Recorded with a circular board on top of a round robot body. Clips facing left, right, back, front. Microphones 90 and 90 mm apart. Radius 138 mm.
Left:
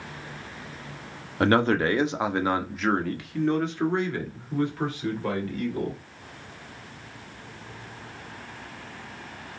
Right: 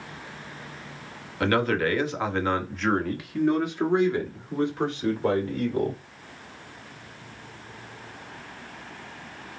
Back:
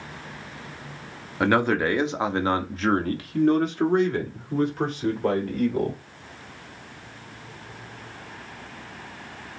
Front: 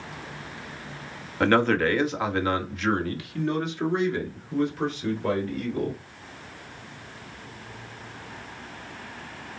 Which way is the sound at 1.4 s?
100° left.